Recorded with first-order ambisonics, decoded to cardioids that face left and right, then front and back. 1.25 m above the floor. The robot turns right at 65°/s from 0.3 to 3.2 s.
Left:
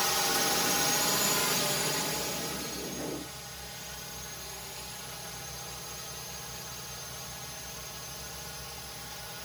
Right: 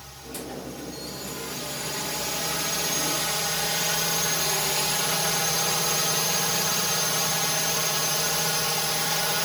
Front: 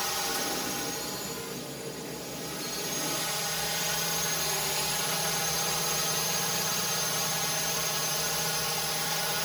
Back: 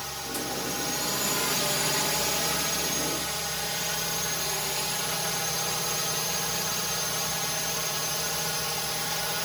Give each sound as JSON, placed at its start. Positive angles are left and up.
{"t": 0.0, "sound": "a drone", "azimuth_deg": 75}